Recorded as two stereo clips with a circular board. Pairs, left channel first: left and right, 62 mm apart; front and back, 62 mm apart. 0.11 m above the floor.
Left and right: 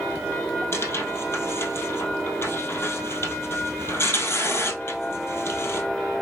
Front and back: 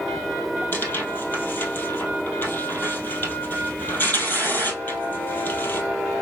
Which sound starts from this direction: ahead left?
Tearing paper, at 0.7 s.